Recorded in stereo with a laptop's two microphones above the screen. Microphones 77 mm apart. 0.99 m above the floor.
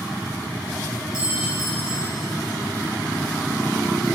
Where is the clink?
60° left (ahead or behind), 1.7 m.